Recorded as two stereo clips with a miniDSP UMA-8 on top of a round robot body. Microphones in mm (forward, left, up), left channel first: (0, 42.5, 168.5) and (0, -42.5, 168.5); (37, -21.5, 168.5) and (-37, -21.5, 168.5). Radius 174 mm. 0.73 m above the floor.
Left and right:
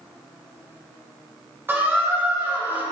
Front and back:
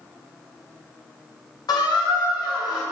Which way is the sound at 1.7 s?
25° right.